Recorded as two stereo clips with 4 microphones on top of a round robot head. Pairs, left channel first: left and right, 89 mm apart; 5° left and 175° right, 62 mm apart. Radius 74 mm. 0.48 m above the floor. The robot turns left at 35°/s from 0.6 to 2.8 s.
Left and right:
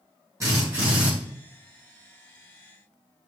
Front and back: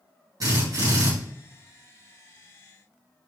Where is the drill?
150° right, 5 m; by 1.1 s 170° right, 5 m.